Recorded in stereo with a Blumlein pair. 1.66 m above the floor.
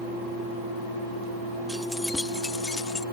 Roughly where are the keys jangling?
Ahead.